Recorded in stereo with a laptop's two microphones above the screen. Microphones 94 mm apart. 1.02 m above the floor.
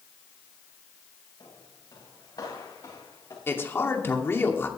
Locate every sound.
1.4 s footsteps: 55° left (ahead or behind), 7.5 m; by 3.4 s 45° left (ahead or behind), 5 m
3.5 s a man speaking: 25° left (ahead or behind), 2 m